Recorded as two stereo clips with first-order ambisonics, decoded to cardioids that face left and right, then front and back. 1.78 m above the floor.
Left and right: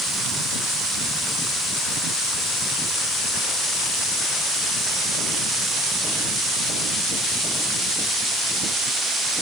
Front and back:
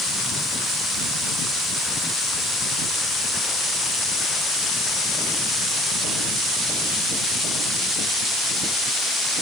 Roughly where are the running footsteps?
I don't hear running footsteps.